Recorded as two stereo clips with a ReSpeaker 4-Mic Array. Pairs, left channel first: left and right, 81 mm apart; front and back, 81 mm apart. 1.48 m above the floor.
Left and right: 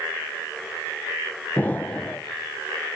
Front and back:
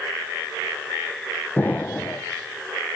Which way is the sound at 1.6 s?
40° left.